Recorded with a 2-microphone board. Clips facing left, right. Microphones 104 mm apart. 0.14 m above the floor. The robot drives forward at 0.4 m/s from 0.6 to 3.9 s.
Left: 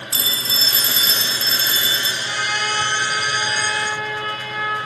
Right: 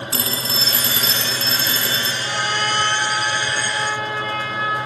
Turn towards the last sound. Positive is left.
turn(degrees=-25)  # may be behind; listen again after turning